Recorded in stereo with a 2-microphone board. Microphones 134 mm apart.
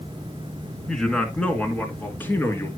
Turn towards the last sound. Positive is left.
turn(degrees=15)  # may be behind; listen again after turning